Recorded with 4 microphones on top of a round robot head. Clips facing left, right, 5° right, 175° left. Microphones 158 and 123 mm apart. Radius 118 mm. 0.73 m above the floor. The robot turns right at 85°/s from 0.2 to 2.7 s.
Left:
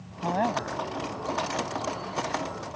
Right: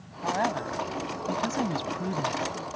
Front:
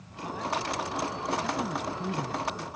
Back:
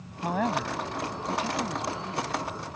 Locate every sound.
0.2 s a woman speaking: 145° left; by 2.7 s 10° right